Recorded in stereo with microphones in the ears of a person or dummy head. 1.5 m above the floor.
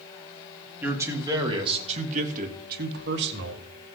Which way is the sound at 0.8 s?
10° right (ahead or behind).